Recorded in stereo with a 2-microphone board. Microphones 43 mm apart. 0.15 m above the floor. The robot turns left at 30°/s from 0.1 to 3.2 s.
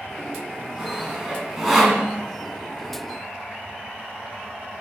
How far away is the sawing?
About 0.5 m.